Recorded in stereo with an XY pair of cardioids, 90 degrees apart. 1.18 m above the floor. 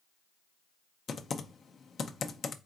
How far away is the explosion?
No explosion in this recording.